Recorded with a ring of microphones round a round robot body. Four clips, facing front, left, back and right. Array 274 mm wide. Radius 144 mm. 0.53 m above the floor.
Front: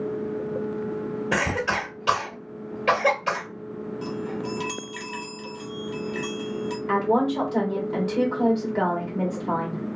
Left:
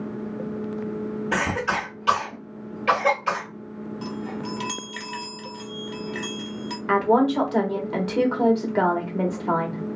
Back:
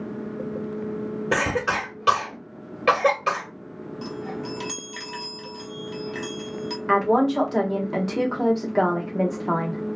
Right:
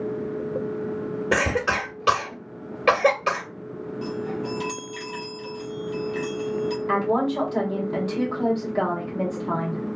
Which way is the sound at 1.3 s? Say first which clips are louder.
Right 2 dB, back 2 dB; 120° right.